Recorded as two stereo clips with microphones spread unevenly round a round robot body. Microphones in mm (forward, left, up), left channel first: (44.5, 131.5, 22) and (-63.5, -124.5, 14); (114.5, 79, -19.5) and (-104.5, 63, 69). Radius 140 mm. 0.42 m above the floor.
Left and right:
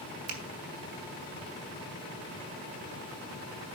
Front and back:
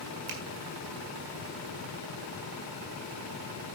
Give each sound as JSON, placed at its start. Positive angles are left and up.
{"t": 0.3, "sound": "a finger snap", "azimuth_deg": -120, "distance_m": 2.0}